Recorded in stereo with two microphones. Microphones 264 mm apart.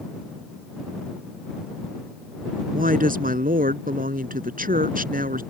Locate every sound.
2.7 s a woman speaking: 35° right (ahead or behind)